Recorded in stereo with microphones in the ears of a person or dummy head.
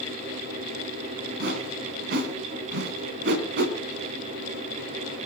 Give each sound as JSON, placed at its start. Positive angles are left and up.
{"t": 1.4, "sound": "a whoosh", "side_deg": -60, "distance_m": 2.5}